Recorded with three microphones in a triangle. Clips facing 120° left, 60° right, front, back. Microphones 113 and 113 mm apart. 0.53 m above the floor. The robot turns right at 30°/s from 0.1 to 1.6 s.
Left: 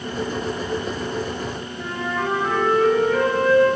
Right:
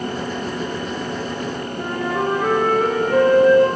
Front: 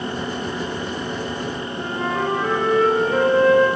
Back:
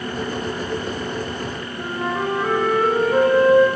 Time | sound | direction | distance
1.8 | a flute | 95° right | 5.5 m